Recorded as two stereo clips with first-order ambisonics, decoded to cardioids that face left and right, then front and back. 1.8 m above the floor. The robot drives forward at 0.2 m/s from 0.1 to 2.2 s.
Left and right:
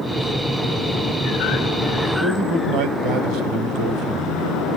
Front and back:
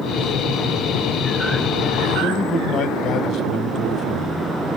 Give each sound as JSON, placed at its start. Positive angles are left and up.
{"t": 2.2, "sound": "a man speaking", "azimuth_deg": -60, "distance_m": 1.4}